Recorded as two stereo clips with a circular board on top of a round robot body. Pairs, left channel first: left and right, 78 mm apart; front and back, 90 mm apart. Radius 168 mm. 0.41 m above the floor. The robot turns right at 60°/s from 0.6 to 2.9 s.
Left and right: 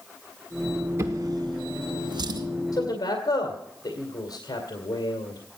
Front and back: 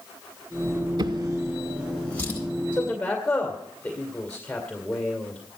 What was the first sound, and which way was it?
A drawer, 150° right.